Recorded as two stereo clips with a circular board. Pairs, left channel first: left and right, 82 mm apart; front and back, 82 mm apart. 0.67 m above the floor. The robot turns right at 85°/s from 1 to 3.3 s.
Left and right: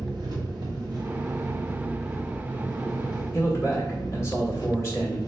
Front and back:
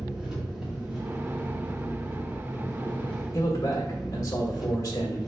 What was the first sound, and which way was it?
An engine running, 100° right.